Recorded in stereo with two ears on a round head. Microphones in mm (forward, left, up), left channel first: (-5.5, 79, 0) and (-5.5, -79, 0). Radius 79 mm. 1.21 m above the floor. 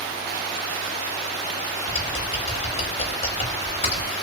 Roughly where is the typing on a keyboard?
Left.